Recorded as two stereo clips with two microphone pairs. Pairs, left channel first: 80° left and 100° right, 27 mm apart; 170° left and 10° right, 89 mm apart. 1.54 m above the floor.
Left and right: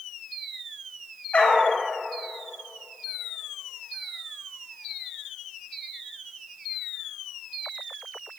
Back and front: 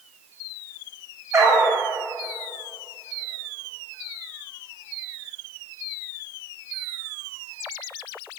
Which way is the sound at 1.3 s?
45° left.